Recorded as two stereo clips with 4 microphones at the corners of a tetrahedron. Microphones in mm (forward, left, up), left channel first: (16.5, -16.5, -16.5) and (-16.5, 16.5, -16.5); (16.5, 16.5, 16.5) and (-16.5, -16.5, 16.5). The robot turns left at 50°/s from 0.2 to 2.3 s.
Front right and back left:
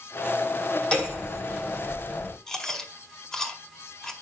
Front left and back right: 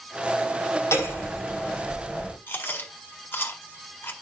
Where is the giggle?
I don't hear a giggle.